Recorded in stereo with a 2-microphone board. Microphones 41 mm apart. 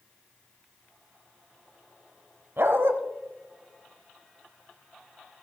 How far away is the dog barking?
About 1.0 m.